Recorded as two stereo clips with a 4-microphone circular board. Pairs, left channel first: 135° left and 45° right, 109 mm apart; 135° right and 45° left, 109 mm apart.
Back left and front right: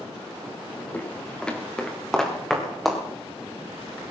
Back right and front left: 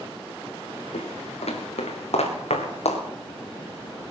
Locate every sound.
0.9 s footsteps: 145° right, 3 m; by 3.0 s 135° right, 4 m